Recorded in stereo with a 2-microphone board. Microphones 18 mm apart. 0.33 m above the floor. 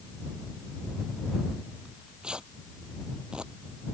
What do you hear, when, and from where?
1.9 s tearing paper: 80° right